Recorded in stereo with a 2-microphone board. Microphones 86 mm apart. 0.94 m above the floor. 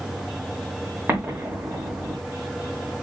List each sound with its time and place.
1.1 s an explosion: 25° right (ahead or behind), 0.9 m